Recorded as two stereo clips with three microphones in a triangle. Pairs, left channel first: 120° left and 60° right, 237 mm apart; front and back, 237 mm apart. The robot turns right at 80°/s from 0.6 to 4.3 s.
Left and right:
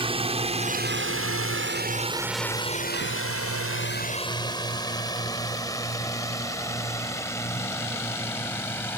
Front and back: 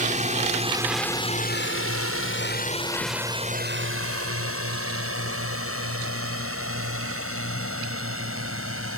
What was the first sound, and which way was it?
A drone, 125° right.